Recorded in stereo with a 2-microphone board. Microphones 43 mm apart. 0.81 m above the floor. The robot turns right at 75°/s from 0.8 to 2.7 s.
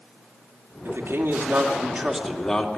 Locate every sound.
0.8 s a man speaking: 105° right, 2.5 m; by 2.8 s 35° left, 2.5 m